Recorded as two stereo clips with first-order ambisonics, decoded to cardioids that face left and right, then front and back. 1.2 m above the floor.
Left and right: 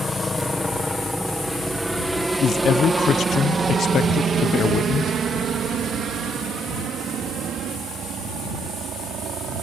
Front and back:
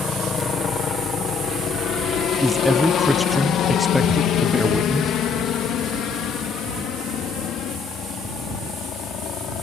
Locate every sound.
0.0 s a helicopter: 30° left; by 9.6 s 50° right
2.4 s a man speaking: 80° left